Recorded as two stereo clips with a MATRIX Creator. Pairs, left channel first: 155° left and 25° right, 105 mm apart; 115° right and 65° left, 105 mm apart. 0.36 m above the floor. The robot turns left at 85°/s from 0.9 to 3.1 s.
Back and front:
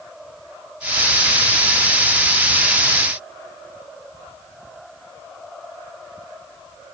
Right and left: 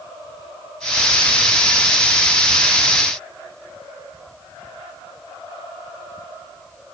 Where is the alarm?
I don't hear an alarm.